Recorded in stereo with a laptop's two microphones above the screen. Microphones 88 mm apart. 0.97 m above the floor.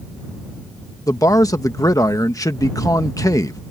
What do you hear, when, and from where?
1.1 s a man speaking: 40° left (ahead or behind)